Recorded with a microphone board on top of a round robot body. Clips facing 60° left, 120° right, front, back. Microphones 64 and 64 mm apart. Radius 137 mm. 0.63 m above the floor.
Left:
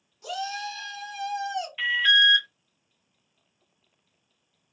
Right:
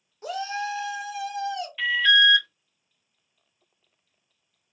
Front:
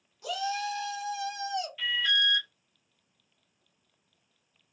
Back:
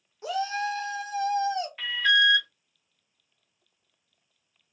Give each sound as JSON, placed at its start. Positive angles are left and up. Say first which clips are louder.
{"t": 0.2, "sound": "a shout", "louder": "right 3 dB, back 3 dB", "azimuth_deg": -140, "distance_m": 1.1}
{"t": 1.8, "sound": "an alarm", "louder": "right 2 dB, back 7 dB", "azimuth_deg": 140, "distance_m": 1.0}